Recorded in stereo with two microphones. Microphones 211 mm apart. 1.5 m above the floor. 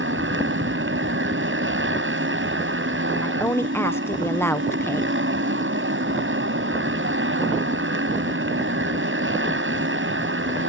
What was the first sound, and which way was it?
A motorcycle, 75° right (ahead or behind).